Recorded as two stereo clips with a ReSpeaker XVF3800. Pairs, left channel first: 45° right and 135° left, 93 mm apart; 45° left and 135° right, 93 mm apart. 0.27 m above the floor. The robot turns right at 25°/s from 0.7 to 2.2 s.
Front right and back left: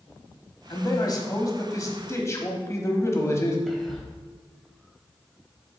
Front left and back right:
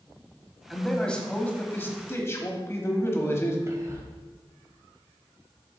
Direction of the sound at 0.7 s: 40° right.